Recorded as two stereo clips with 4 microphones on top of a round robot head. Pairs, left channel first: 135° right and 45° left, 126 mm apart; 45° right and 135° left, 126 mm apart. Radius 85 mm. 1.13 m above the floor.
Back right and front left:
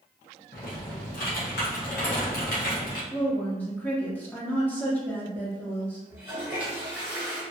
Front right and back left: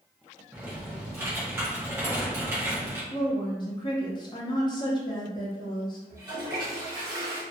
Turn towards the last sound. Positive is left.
turn(degrees=110)